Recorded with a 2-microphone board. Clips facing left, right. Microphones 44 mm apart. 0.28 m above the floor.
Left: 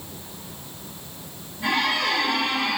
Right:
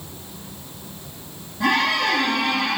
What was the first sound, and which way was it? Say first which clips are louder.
A squeak: right 3 dB; 75° right (ahead or behind).